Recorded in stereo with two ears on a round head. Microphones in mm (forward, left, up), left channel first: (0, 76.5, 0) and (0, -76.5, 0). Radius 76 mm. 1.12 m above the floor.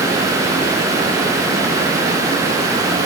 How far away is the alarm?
No alarm in this recording.